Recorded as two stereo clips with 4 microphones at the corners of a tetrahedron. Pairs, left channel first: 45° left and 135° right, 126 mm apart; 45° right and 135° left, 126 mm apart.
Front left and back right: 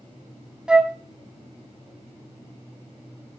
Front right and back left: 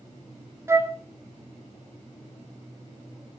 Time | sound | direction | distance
0.7 | a flute | 150° left | 0.7 m